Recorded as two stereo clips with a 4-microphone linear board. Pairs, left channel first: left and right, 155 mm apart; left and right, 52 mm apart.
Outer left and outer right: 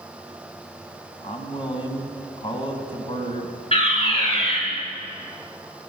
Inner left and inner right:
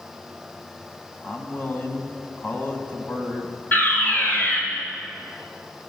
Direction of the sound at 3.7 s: 40° left (ahead or behind).